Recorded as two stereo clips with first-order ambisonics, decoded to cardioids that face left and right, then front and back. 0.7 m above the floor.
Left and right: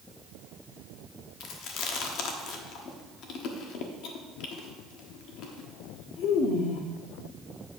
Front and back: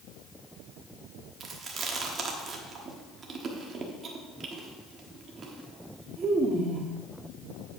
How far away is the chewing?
About 1.1 m.